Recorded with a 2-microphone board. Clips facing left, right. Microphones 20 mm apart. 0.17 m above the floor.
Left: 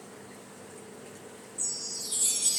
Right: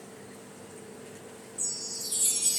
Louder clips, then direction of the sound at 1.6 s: Even; 10° left (ahead or behind).